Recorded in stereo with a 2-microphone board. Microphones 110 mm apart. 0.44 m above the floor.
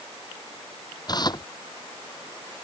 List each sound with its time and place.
1.1 s tearing paper: 40° left (ahead or behind)